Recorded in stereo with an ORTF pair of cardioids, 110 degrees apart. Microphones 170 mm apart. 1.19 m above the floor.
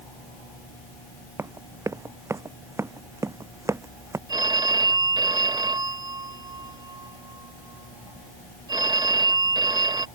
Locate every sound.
1.4 s running footsteps: 20° right
4.3 s a phone ringing: 25° right